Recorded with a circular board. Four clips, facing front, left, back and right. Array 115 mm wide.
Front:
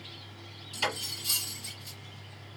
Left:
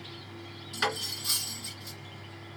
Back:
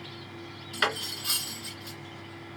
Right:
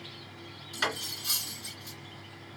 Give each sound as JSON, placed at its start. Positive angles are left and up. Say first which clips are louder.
{"t": 0.7, "sound": "cutlery clinking", "louder": "left 2 dB, back 4 dB", "azimuth_deg": 175, "distance_m": 1.8}